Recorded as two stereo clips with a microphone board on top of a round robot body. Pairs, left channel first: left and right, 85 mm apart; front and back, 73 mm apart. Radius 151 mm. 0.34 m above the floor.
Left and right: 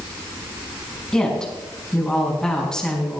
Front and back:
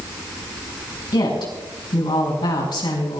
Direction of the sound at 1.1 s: 10° left.